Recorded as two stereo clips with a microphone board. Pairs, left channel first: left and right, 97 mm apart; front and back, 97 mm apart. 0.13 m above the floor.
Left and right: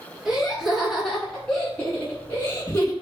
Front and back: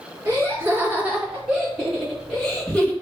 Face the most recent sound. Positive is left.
turn(degrees=70)